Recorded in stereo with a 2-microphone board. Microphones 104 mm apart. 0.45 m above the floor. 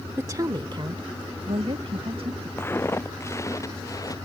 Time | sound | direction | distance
0.2 | a woman speaking | 25° right (ahead or behind) | ?
2.6 | footsteps | 20° left (ahead or behind) | ?